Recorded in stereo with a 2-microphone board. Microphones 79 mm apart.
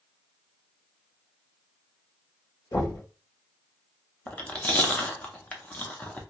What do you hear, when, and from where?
2.7 s knocking: 65° left (ahead or behind), 1.1 m
4.3 s chewing: 20° left (ahead or behind), 0.6 m